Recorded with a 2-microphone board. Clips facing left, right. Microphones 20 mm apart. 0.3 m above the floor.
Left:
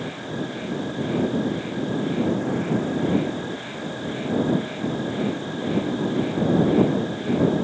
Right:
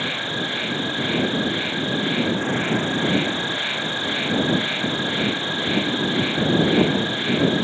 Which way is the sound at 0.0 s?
70° right (ahead or behind).